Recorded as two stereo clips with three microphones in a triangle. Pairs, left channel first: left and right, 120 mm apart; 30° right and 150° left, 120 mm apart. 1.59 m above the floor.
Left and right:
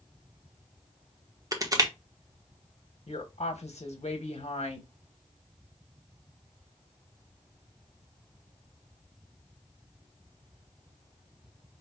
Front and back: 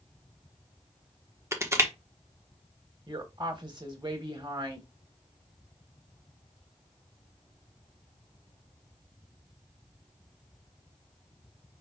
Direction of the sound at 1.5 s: 145° right.